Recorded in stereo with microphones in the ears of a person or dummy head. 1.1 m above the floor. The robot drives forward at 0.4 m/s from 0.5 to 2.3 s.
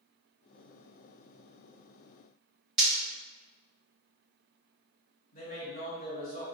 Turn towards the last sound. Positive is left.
turn(degrees=35)  # may be behind; listen again after turning